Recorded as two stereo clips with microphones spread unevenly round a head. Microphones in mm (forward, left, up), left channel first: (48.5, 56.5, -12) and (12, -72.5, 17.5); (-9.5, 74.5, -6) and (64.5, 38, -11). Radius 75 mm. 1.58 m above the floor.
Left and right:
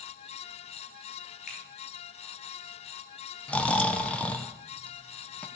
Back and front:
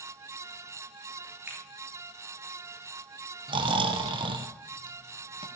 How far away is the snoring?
About 1.2 m.